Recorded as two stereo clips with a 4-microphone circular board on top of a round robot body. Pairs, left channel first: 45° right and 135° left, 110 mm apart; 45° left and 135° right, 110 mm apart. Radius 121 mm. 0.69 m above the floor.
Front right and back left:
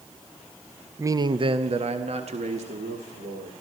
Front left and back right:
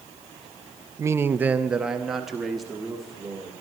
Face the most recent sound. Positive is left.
turn(degrees=135)